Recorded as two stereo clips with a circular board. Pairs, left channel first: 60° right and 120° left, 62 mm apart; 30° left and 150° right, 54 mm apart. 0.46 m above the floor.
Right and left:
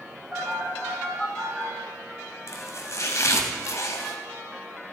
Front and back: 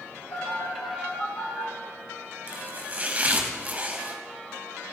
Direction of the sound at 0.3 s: 30° left.